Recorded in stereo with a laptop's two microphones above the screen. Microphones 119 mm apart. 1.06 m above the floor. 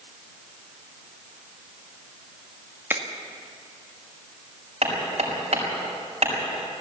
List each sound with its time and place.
2.9 s a finger snap: 15° right (ahead or behind), 1.9 m
4.8 s hammering: 60° right (ahead or behind), 6 m